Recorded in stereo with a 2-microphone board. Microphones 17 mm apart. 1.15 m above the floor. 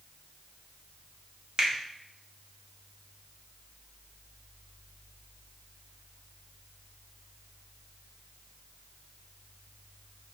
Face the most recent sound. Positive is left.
turn(degrees=-40)  # may be behind; listen again after turning